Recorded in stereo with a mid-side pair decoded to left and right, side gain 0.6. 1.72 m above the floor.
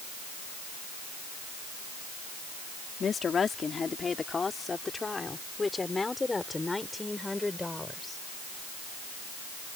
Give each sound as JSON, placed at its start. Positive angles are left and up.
{"t": 3.0, "sound": "a woman speaking", "azimuth_deg": 35}